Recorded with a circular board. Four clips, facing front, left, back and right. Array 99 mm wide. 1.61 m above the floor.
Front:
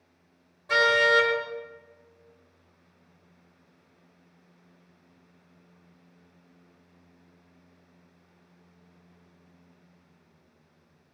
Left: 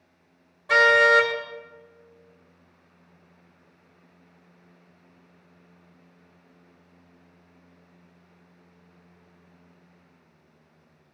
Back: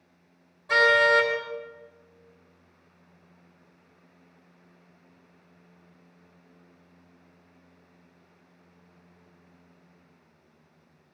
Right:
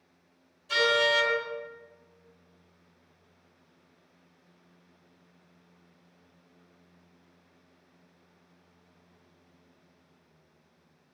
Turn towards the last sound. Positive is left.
turn(degrees=90)